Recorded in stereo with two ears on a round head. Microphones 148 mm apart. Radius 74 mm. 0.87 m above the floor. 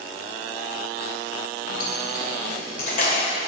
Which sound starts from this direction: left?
Keys jangling, at 1.7 s.